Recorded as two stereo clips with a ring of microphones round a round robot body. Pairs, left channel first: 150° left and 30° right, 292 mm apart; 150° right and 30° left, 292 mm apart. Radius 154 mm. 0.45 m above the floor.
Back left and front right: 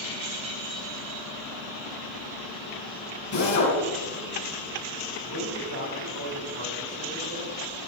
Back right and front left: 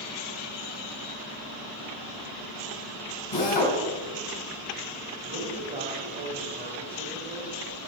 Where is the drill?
170° right, 4 m.